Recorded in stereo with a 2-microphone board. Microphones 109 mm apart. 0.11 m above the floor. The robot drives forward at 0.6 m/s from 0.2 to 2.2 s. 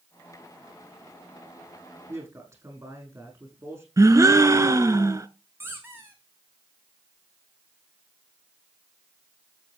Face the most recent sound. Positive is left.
turn(degrees=-20)  # may be behind; listen again after turning